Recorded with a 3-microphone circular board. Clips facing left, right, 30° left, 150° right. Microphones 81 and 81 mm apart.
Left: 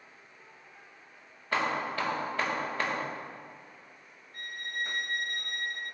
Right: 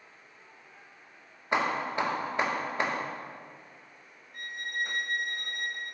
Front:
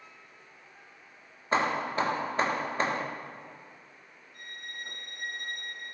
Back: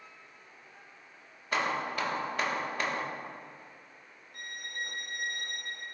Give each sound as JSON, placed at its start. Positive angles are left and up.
{"t": 1.5, "sound": "hammering", "azimuth_deg": -25, "distance_m": 0.6}
{"t": 4.3, "sound": "a violin", "azimuth_deg": -160, "distance_m": 0.8}